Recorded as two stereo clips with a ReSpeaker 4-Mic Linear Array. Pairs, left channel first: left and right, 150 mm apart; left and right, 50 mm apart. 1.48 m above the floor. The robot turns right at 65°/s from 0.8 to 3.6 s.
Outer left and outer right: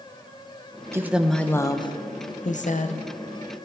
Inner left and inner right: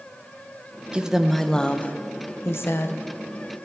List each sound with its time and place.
0.9 s a woman speaking: 20° right, 0.7 m; by 3.0 s 115° left, 0.7 m